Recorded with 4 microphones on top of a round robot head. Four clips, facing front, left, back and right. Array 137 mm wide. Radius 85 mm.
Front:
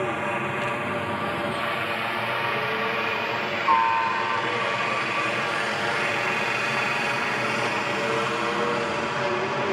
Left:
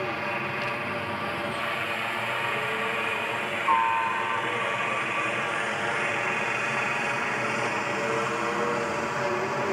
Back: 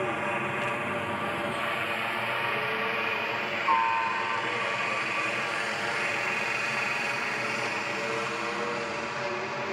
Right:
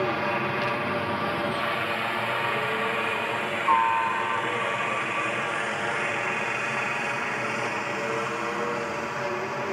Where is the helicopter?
60° right; by 9.7 s 15° left.